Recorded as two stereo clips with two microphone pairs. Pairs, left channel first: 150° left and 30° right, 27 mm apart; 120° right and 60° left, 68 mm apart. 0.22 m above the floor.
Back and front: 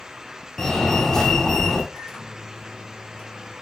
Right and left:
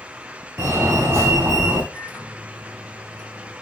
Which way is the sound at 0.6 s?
85° left.